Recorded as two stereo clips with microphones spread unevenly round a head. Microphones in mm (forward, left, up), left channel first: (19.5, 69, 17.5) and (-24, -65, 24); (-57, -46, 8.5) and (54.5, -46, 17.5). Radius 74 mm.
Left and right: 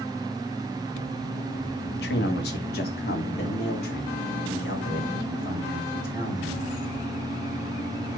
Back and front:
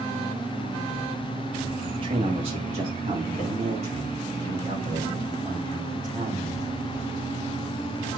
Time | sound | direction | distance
1.9 | a man speaking | 60° left | 1.5 m